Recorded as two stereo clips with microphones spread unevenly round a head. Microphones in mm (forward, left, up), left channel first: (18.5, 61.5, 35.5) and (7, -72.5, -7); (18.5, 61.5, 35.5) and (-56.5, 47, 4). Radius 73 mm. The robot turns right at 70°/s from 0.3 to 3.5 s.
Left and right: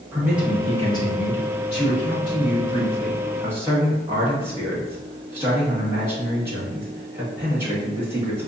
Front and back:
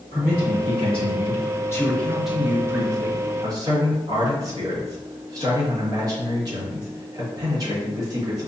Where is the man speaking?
25° right, 1.6 m; by 8.5 s 160° right, 1.6 m.